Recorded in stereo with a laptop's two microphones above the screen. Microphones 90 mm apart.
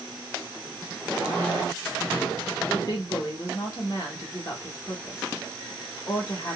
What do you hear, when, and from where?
2.7 s a woman speaking: 40° left (ahead or behind), 1.4 m